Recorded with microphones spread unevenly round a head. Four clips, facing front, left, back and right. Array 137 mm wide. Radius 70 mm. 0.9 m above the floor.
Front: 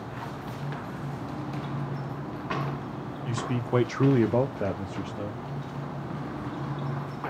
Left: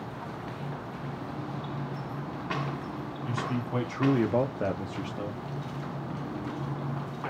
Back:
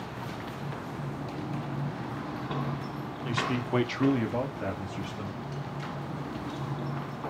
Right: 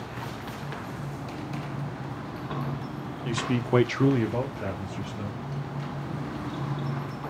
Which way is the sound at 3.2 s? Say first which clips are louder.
Right 5 dB, back 1 dB; 100° right.